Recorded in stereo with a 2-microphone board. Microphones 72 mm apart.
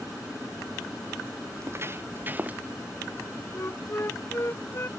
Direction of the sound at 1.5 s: 40° right (ahead or behind).